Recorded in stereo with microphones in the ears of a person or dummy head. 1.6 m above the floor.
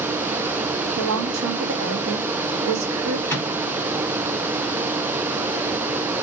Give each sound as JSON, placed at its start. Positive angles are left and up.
{"t": 1.0, "sound": "a woman speaking", "side_deg": -75, "distance_m": 0.8}
{"t": 3.3, "sound": "a microwave", "side_deg": 10, "distance_m": 2.5}